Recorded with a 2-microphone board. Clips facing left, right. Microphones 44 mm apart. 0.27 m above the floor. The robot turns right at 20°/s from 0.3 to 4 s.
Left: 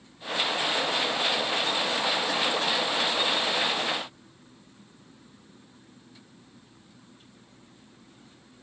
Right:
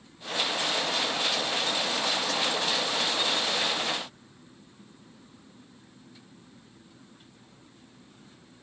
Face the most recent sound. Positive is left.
No sound to turn to.